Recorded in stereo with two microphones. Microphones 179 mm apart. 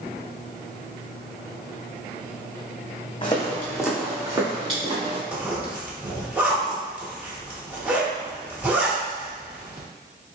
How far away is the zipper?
About 1.2 m.